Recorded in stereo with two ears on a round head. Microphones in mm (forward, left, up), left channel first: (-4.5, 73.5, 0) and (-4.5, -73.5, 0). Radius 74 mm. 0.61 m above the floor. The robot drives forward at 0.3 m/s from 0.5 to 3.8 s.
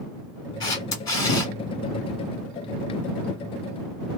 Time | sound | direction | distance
0.6 | a camera shutter | 25° left (ahead or behind) | 1.2 m